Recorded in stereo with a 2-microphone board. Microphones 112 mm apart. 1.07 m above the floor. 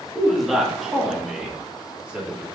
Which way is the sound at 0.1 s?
Centre (ahead or behind).